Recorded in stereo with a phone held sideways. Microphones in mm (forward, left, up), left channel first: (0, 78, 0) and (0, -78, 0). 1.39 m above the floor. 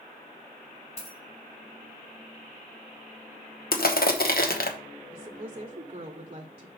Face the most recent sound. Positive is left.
turn(degrees=-35)  # may be behind; listen again after turning